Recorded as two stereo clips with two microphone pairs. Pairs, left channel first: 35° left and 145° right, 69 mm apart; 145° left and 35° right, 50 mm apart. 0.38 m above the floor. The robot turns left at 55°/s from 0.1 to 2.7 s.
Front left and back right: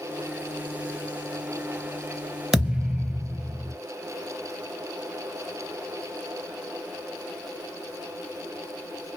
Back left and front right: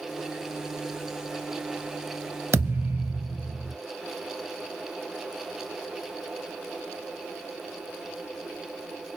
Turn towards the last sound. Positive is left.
turn(degrees=-70)